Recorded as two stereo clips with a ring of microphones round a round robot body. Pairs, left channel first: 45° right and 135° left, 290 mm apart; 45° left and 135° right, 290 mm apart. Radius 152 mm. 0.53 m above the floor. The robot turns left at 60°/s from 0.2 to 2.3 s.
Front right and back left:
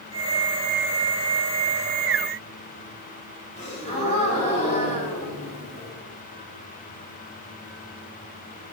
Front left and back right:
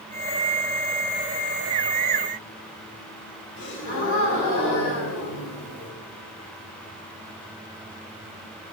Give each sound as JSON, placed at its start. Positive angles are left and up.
{"t": 3.6, "sound": "a gasp", "azimuth_deg": 20, "distance_m": 4.5}